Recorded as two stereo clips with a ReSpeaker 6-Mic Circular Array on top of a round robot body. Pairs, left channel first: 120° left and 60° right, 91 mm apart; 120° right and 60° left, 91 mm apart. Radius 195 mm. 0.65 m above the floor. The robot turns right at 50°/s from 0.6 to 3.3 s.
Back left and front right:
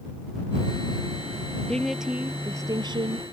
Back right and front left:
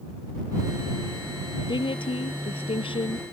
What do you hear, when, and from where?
1.7 s a woman speaking: 160° right; by 3.2 s 85° right